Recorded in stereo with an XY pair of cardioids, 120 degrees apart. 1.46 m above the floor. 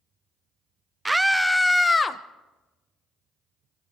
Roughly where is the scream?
Ahead.